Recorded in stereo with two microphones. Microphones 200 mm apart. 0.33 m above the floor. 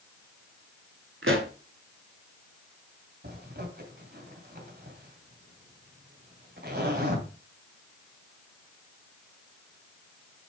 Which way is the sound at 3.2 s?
55° right (ahead or behind).